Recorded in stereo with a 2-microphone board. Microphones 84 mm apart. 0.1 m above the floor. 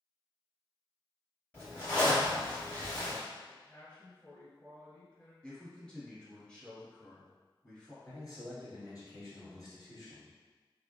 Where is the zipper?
20° left (ahead or behind), 1.9 m.